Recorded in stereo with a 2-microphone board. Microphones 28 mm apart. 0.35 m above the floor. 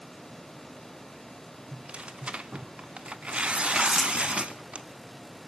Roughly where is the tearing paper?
Right.